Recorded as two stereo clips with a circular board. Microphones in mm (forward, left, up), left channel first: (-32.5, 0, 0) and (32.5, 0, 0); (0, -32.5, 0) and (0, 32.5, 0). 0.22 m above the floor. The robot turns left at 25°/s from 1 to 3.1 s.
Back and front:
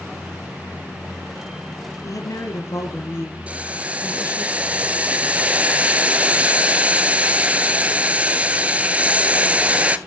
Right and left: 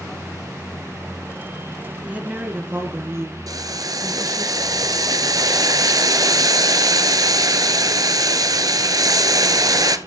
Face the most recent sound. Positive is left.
turn(degrees=70)